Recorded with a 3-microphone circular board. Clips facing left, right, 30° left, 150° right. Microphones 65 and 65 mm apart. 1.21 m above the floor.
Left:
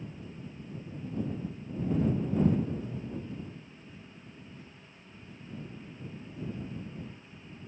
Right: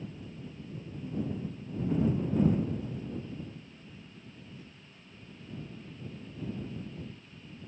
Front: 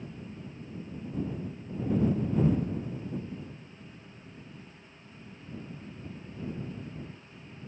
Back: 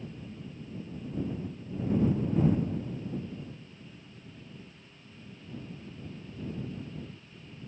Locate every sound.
Only background noise.